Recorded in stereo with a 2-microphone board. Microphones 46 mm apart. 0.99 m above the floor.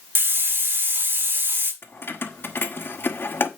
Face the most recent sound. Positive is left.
turn(degrees=50)  # may be behind; listen again after turning